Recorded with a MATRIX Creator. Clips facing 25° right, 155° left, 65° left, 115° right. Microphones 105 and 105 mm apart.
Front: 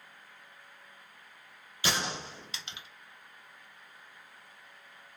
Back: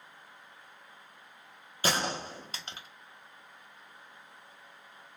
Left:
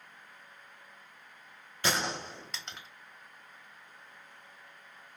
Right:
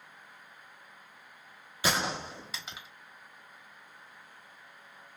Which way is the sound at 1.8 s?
165° left.